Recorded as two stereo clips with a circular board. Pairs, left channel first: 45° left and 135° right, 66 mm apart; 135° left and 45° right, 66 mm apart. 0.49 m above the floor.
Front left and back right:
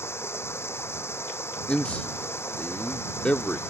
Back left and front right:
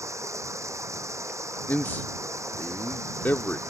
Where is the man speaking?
100° left.